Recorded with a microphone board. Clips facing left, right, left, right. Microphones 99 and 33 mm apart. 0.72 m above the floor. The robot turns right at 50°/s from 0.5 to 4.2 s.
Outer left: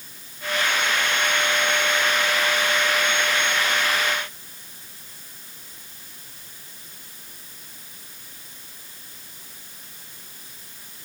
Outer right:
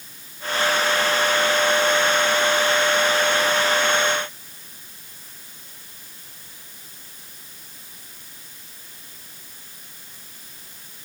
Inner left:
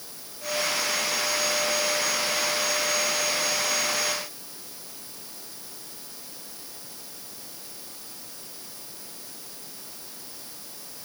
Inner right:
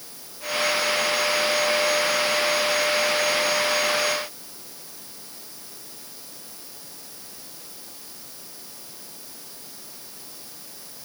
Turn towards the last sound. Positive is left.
No sound to turn to.